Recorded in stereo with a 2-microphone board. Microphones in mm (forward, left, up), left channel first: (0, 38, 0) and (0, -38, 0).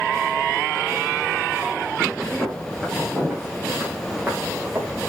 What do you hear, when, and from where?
2.4 s footsteps: centre (ahead or behind), 5 m; by 5.1 s 25° right (ahead or behind), 3.5 m